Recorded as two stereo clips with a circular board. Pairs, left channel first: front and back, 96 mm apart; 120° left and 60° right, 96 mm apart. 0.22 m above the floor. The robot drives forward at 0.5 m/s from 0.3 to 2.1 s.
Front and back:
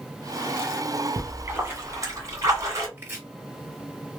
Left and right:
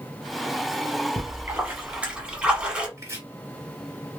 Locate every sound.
1.2 s a splash: 110° right, 1.2 m; by 2.9 s 135° right, 1.4 m
3.0 s chopping: 115° right, 1.8 m